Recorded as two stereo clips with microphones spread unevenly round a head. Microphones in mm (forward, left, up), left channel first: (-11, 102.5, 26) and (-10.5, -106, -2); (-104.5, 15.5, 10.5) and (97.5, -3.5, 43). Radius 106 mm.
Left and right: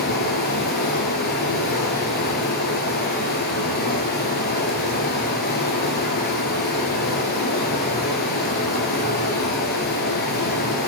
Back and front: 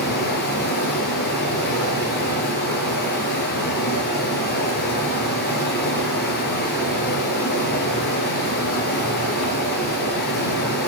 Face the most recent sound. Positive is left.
turn(degrees=130)